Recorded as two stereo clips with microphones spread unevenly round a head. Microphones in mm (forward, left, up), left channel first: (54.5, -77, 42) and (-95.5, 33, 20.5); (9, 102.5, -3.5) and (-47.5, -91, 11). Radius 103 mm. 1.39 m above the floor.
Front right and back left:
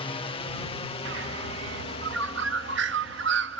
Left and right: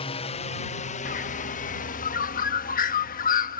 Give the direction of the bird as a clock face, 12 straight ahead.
8 o'clock.